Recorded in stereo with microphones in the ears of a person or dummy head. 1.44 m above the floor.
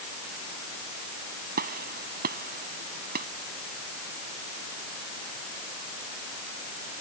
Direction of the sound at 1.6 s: 50° right (ahead or behind).